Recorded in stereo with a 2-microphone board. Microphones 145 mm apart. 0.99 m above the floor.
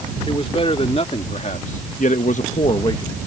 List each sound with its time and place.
0.3 s a man speaking: 40° left (ahead or behind); by 3.2 s 20° left (ahead or behind)